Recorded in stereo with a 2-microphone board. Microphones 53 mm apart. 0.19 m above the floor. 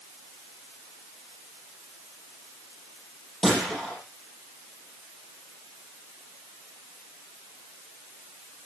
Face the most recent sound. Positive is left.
turn(degrees=5)  # may be behind; listen again after turning